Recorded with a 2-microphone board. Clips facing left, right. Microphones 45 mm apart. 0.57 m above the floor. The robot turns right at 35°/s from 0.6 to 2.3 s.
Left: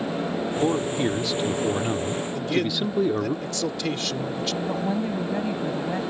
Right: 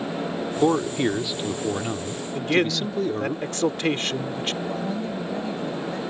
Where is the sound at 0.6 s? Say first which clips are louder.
Right 4 dB; 45° right; by 3.4 s 15° left.